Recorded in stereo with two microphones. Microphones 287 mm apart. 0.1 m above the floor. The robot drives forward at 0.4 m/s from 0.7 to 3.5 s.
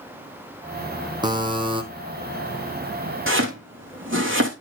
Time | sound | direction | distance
1.2 | a buzzer | 15° right (ahead or behind) | 1.8 m
3.3 | chopping | 45° right (ahead or behind) | 2.5 m